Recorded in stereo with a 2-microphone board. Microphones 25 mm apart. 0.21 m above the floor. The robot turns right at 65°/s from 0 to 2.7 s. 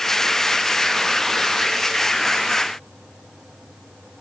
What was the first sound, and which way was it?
Only background noise.